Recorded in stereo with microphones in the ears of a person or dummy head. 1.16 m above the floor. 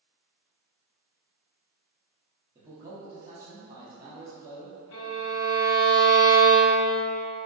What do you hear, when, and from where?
2.5 s a man speaking: 20° right (ahead or behind), 0.9 m
4.9 s a violin: 70° left (ahead or behind), 1.5 m